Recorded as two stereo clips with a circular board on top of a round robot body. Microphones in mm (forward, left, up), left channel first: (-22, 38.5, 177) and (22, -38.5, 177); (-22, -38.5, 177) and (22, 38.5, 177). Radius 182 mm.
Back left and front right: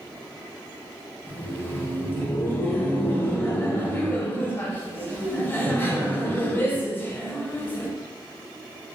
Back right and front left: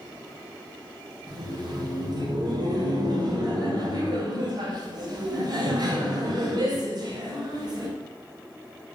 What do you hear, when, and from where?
1.3 s laughter: 60° left, 0.9 m